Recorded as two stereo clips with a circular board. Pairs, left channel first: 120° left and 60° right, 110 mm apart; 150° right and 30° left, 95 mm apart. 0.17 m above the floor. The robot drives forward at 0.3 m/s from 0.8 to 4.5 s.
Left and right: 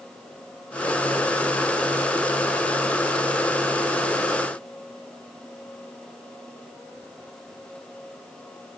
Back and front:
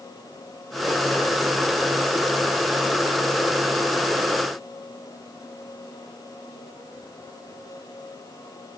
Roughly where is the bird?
No bird in this recording.